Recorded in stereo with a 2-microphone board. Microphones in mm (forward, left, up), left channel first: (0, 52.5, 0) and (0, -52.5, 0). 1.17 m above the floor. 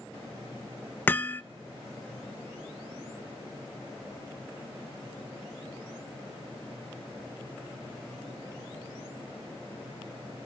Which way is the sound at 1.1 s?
20° left (ahead or behind).